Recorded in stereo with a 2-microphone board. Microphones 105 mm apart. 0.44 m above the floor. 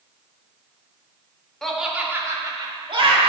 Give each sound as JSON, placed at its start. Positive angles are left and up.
{"t": 1.6, "sound": "laughter", "side_deg": 5, "distance_m": 1.0}